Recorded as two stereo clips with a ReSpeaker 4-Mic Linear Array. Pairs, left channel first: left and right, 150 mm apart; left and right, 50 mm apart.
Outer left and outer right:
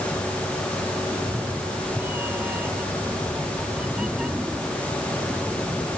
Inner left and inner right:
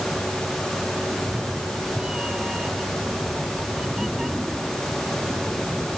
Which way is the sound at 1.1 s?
20° right (ahead or behind).